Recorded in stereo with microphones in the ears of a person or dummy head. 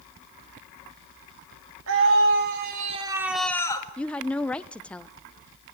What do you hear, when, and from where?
1.9 s a scream: 75° right (ahead or behind), 2.5 m; by 3.9 s 25° left (ahead or behind), 1.8 m
4.0 s a woman speaking: 5° left (ahead or behind), 0.5 m